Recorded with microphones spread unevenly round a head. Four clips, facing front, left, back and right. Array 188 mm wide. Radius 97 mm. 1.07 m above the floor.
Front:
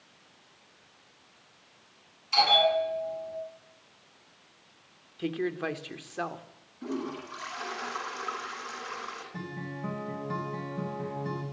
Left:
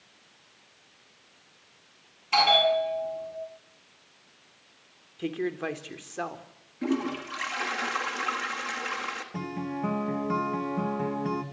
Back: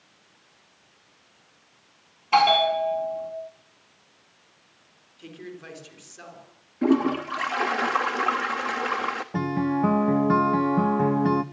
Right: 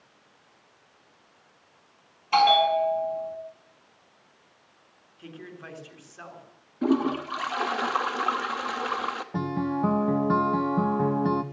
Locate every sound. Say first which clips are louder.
2.3 s a bell: right 3 dB, back 5 dB; 170° right, 7.5 m
5.2 s a woman speaking: left 12 dB, front 10 dB; 50° left, 3 m
6.8 s a toilet flushing: right 5 dB, back 14 dB; 165° right, 1.3 m
9.3 s a guitar: right 6 dB, back 19 dB; 160° right, 1.4 m